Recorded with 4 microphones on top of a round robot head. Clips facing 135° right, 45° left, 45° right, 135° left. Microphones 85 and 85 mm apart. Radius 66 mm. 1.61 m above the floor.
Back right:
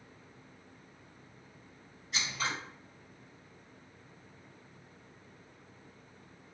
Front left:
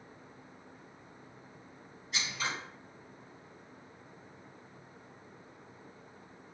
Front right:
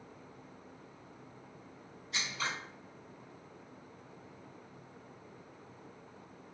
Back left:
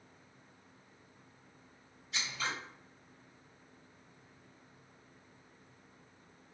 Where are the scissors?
45° right, 1.4 m.